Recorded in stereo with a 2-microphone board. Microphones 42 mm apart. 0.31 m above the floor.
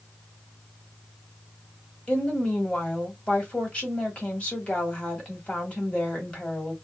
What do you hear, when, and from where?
2.1 s a woman speaking: 25° left (ahead or behind), 1.5 m